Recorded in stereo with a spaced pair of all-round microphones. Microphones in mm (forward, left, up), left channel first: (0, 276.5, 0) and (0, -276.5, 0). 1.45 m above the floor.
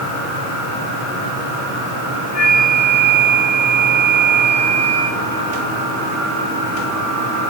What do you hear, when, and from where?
2.3 s a flute: 60° left (ahead or behind), 4.5 m